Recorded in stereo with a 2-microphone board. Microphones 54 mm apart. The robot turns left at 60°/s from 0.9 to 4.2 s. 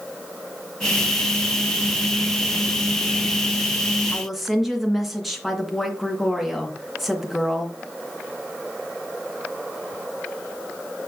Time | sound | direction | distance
4.1 | a woman speaking | 5° left (ahead or behind) | 2.5 m